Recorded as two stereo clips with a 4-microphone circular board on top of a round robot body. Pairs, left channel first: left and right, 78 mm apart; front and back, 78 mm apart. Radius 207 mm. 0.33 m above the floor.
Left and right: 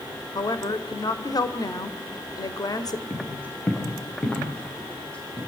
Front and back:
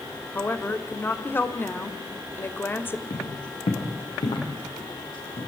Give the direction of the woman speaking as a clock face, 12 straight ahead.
10 o'clock.